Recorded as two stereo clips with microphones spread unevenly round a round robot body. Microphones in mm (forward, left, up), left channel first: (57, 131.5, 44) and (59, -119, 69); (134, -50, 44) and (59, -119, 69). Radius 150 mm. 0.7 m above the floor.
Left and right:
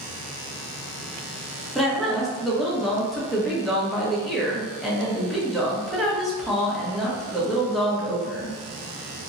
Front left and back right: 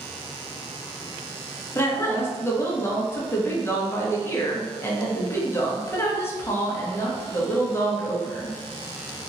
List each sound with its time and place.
1.8 s a woman speaking: 5° left, 1.1 m